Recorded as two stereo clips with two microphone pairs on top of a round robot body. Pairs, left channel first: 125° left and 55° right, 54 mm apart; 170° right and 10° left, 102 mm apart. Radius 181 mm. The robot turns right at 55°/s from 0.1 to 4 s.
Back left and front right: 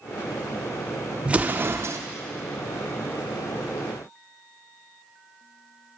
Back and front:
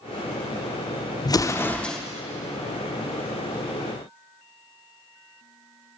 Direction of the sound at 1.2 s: 125° right.